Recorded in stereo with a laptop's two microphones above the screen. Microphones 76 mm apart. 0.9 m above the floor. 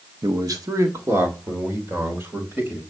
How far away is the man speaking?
About 0.8 m.